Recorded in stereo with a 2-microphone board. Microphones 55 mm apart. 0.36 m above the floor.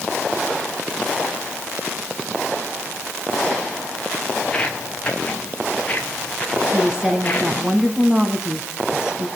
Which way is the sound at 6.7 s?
15° right (ahead or behind).